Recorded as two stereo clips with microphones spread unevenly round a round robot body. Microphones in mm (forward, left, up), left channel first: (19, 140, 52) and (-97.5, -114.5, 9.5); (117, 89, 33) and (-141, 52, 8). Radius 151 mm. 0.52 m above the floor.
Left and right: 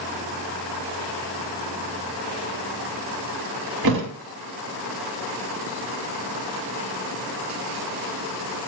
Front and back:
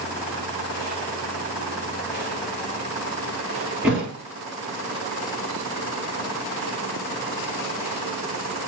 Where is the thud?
80° right, 0.7 m.